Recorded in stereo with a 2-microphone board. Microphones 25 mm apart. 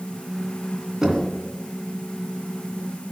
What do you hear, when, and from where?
1.0 s knocking: 20° right (ahead or behind), 2.5 m